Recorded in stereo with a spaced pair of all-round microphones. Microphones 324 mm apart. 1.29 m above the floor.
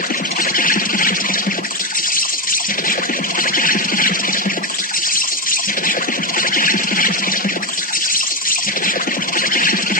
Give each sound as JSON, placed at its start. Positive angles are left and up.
{"t": 0.0, "sound": "an insect", "side_deg": 25, "distance_m": 1.2}